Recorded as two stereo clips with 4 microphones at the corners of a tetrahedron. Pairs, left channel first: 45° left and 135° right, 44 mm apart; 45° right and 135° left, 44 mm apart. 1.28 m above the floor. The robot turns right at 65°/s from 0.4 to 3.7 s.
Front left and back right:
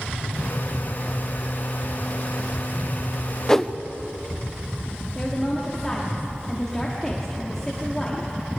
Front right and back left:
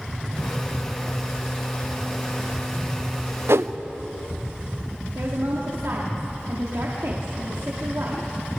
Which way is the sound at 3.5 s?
120° left.